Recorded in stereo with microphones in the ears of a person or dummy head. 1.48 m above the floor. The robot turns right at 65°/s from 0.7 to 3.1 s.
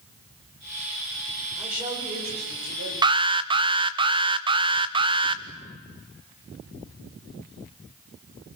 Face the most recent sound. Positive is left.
turn(degrees=-25)  # may be behind; listen again after turning